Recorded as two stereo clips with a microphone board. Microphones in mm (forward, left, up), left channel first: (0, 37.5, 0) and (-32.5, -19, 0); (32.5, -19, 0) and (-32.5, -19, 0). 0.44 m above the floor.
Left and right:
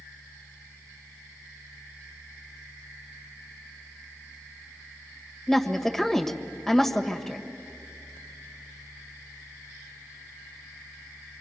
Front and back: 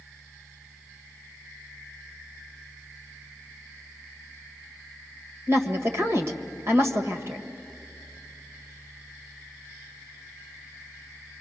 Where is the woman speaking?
145° left, 1.6 m.